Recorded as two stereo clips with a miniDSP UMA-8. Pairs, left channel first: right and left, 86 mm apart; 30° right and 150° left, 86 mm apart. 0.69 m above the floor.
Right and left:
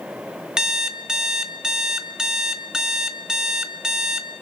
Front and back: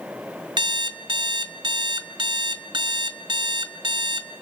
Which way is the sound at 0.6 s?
175° left.